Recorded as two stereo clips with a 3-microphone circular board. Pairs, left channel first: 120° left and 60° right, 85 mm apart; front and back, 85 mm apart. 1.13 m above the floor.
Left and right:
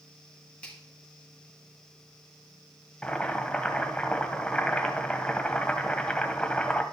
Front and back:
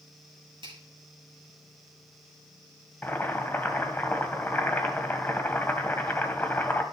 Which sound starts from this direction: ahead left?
Boiling, at 3.0 s.